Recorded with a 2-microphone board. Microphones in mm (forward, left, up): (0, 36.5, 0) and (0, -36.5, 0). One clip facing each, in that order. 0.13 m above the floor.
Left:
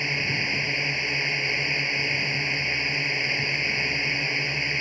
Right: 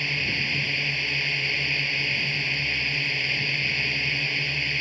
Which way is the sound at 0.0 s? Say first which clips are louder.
Left 1 dB; 20° left (ahead or behind).